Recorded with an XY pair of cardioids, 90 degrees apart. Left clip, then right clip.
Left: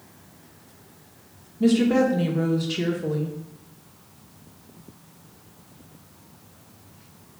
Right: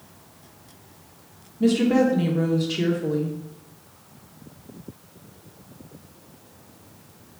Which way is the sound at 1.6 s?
5° left.